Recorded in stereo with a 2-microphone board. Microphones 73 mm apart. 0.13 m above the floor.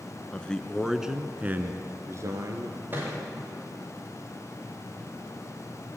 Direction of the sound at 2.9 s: 30° right (ahead or behind).